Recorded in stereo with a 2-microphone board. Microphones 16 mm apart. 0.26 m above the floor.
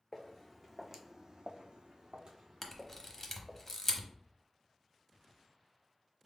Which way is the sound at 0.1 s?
15° left (ahead or behind).